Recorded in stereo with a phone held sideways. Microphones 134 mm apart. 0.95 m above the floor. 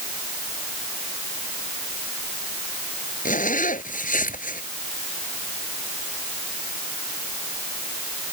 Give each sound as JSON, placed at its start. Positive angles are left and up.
{"t": 3.2, "sound": "a zipper", "side_deg": 80}